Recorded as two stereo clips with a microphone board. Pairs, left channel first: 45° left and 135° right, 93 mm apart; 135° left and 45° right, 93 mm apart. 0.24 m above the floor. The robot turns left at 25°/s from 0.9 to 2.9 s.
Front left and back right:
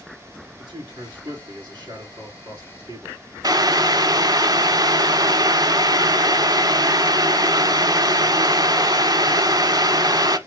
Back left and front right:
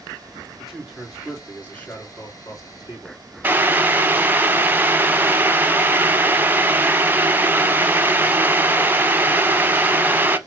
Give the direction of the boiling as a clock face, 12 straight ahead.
4 o'clock.